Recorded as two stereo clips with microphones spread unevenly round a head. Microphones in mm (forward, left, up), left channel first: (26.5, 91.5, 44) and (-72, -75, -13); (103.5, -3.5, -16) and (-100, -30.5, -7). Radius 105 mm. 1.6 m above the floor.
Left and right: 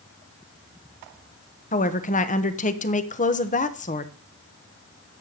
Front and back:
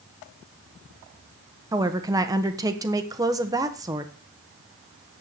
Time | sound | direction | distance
1.7 | a woman speaking | 115° left | 1.3 m